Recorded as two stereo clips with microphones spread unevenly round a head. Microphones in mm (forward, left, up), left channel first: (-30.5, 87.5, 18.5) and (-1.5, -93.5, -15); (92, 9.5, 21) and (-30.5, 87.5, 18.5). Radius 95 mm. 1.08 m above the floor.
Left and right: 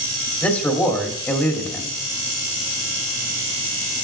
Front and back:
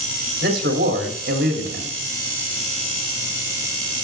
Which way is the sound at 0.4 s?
Straight behind.